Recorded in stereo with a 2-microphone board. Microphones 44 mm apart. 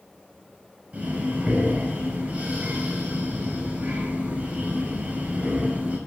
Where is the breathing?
30° right (ahead or behind), 5.5 m.